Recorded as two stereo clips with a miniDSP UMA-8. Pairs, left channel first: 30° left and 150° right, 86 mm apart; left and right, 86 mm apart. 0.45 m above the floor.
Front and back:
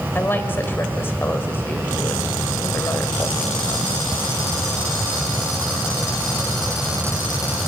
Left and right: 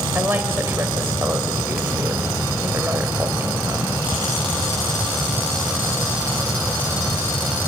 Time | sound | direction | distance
0.1 | a woman speaking | 30° right | 2 m